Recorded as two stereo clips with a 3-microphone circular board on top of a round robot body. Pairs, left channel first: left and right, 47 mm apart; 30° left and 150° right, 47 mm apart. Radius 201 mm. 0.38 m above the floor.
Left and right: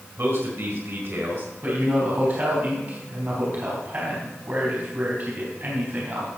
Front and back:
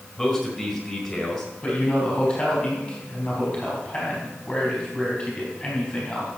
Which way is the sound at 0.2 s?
60° right.